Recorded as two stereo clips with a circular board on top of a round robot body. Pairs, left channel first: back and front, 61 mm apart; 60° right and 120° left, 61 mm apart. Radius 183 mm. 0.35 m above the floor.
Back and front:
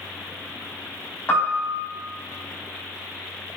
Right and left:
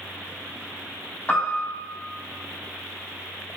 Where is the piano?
125° right, 4 m.